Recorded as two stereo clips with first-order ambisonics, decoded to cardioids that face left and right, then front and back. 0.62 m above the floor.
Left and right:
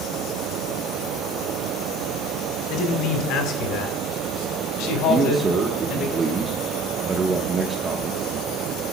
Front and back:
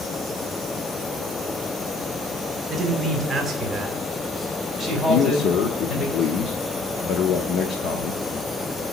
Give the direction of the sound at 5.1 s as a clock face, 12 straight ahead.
1 o'clock.